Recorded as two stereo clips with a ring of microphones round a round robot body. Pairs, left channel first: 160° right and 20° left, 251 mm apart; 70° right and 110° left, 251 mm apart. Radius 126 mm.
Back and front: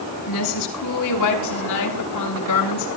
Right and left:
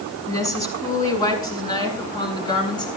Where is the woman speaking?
145° right, 6.5 m; by 2.9 s 140° right, 8.5 m.